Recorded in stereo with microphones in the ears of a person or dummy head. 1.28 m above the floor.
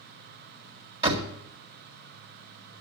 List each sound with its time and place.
1.0 s a door slam: 35° right (ahead or behind), 1.9 m